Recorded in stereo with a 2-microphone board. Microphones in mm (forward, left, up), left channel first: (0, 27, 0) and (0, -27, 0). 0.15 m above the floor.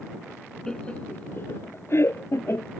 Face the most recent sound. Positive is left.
turn(degrees=55)  # may be behind; listen again after turning